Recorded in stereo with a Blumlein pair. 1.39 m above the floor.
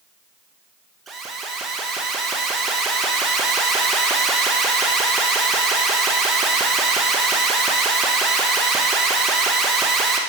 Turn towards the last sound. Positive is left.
turn(degrees=-15)